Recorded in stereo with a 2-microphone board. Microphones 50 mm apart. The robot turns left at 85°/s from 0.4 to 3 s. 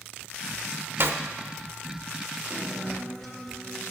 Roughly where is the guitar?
Behind right.